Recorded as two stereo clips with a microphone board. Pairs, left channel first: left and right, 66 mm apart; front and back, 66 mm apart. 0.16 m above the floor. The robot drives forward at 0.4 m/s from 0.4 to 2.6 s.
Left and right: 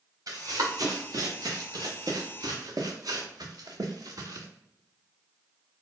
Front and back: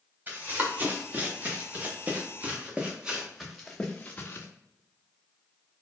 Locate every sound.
0.3 s running footsteps: 120° right, 1.9 m; by 4.5 s 55° right, 1.1 m